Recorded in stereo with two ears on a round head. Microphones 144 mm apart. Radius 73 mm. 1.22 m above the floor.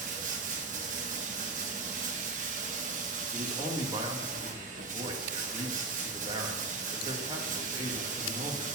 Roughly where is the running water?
Right.